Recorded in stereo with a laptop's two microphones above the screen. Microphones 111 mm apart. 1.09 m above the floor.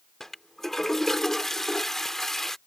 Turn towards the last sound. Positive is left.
turn(degrees=5)  # may be behind; listen again after turning